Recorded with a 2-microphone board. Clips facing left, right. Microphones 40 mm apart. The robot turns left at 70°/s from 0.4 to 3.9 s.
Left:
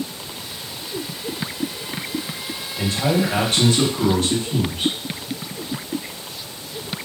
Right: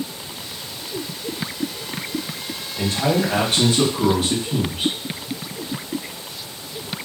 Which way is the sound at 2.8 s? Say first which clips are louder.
Even; 85° right.